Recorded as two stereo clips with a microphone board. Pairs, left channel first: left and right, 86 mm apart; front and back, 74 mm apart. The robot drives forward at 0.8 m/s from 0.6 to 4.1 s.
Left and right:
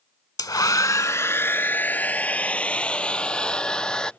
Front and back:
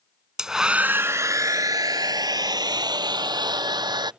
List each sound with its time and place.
0.4 s a hair dryer: 100° left; by 4.1 s 170° left